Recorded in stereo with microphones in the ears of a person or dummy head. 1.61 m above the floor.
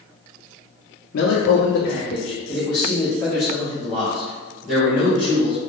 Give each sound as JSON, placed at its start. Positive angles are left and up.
{"t": 1.1, "sound": "a man speaking", "side_deg": 70, "distance_m": 0.5}